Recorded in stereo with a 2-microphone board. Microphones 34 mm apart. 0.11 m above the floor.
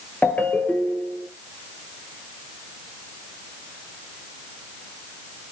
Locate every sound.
0.2 s a ringtone: 50° left (ahead or behind), 1.4 m